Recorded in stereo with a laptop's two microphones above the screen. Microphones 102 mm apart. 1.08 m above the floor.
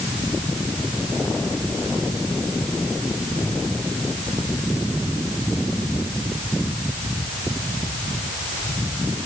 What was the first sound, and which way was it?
Only background noise.